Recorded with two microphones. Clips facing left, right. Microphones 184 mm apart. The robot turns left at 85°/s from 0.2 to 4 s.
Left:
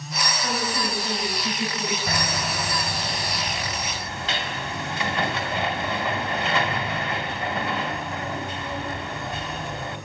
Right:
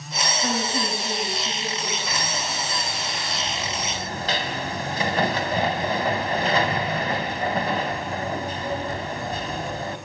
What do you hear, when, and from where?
0.4 s a woman speaking: 145° right, 9.5 m; by 2.0 s 80° left, 9.5 m
2.1 s hammering: 120° left, 3 m; by 10.0 s 45° right, 3 m